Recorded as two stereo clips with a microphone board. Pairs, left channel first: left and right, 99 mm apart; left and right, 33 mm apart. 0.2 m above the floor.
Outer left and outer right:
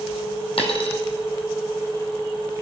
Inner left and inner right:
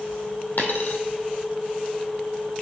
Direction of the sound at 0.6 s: 65° left (ahead or behind).